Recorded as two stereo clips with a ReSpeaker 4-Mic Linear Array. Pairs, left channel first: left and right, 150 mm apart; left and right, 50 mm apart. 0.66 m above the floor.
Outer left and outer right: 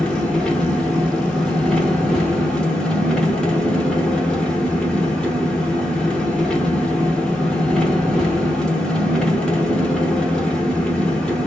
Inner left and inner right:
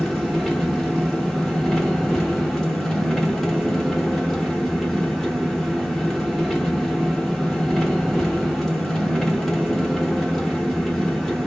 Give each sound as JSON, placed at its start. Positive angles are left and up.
{"t": 0.0, "sound": "an engine running", "side_deg": 5, "distance_m": 1.0}